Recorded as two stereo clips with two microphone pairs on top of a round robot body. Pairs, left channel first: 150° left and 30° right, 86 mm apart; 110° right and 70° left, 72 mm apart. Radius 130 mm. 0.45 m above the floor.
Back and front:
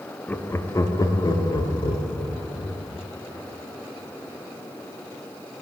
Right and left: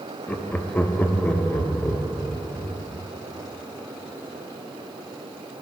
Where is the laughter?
170° right, 0.8 m; by 2.8 s 170° left, 1.8 m.